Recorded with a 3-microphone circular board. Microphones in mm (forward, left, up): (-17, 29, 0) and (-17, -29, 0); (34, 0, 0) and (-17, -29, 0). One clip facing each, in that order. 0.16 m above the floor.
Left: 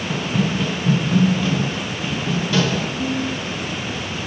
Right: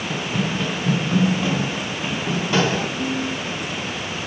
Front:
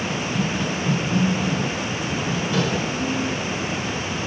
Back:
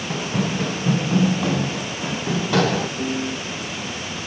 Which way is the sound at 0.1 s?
175° left.